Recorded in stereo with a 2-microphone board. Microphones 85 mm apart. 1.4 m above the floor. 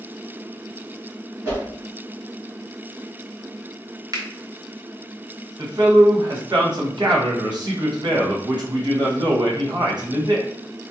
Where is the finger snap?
45° right (ahead or behind), 0.7 m.